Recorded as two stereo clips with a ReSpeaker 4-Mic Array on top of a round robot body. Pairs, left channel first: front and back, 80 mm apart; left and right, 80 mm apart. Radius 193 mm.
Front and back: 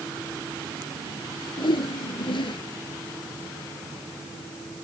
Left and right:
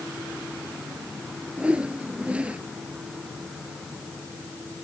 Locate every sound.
1.6 s a whoosh: 15° right